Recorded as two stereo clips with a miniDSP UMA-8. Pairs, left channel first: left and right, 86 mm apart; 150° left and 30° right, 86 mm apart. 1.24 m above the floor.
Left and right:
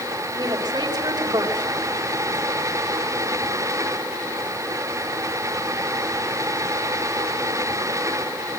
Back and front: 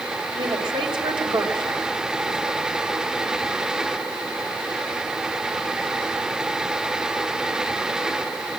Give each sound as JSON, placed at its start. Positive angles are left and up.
{"t": 0.3, "sound": "a woman speaking", "azimuth_deg": -50, "distance_m": 4.5}